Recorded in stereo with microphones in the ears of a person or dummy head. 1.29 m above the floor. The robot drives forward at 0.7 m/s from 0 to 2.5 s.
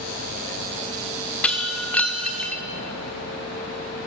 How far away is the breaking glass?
About 1.1 m.